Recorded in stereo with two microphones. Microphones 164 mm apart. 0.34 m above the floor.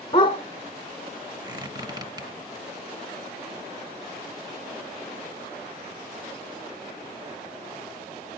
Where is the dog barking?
30° left (ahead or behind), 1.3 m.